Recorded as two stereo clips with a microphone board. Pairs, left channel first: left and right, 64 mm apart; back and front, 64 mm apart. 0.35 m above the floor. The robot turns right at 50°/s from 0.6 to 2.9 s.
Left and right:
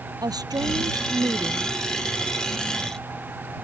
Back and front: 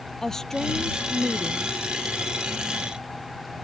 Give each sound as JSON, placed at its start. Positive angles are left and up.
{"t": 0.2, "sound": "a woman speaking", "azimuth_deg": -95}